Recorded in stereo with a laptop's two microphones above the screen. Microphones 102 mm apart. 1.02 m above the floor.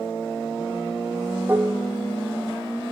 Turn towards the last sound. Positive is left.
turn(degrees=-15)  # may be behind; listen again after turning